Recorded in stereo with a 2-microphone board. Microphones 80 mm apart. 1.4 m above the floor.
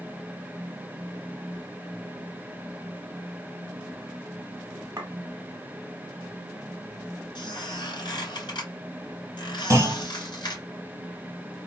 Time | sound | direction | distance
5.0 | a clink | 45° right (ahead or behind) | 1.1 m
7.3 | a squeak | 65° left (ahead or behind) | 2 m
9.7 | a clunk | 35° right (ahead or behind) | 1.6 m